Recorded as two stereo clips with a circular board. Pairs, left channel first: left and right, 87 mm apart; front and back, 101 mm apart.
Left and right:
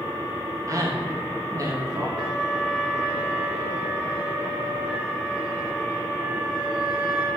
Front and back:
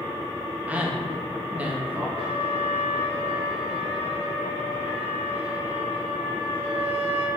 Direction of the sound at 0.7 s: 110° right.